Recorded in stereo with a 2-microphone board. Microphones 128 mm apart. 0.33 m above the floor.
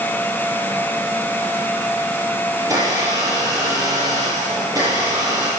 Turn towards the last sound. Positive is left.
turn(degrees=-30)  # may be behind; listen again after turning